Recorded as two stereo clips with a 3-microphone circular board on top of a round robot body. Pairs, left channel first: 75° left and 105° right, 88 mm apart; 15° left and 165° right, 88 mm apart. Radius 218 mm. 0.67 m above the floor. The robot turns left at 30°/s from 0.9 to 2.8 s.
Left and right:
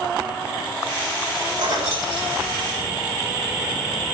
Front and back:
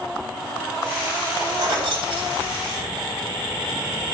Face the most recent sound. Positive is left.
turn(degrees=-160)